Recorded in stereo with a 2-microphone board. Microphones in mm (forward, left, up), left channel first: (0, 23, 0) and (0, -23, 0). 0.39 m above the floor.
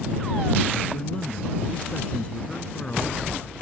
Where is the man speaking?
25° left (ahead or behind).